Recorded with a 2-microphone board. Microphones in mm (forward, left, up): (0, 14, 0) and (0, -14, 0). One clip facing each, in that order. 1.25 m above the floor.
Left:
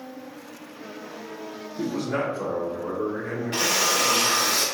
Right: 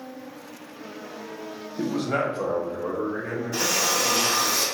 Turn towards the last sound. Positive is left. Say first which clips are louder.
# left 2 dB
turn(degrees=55)  # may be behind; listen again after turning